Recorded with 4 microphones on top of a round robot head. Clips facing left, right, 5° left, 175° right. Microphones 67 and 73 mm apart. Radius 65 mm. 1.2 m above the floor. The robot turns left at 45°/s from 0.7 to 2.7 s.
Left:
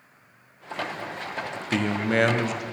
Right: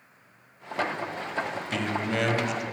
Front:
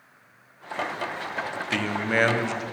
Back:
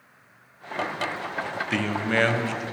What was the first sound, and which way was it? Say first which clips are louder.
A man speaking: left 6 dB, even; 100° left.